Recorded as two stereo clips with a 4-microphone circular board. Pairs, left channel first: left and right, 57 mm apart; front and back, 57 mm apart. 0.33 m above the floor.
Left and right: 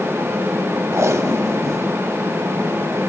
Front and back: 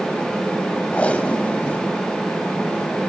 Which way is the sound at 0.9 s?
65° right.